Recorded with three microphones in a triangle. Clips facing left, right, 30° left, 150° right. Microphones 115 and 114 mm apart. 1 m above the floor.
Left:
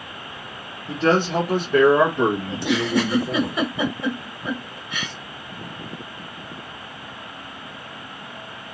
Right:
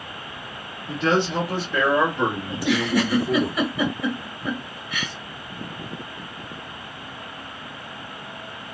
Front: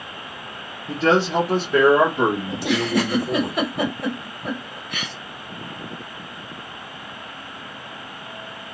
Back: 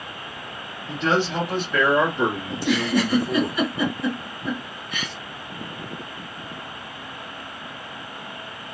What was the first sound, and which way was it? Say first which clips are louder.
A man speaking: left 2 dB, front 4 dB; 55° left.